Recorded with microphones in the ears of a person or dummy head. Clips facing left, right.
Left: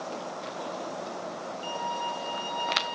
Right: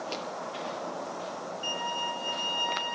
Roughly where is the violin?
Centre.